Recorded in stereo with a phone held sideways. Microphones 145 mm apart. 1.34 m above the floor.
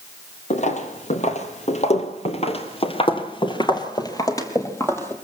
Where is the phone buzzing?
I don't hear a phone buzzing.